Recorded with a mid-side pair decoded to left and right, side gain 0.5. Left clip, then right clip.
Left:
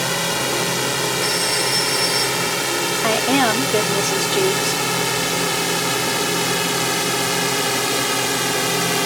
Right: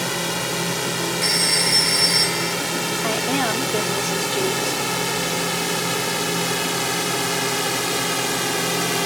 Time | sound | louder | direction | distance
0.0 | a drone | left 3 dB | 20° left | ?
1.2 | a phone ringing | right 4 dB | 30° right | ?
3.0 | a woman speaking | left 6 dB | 35° left | ?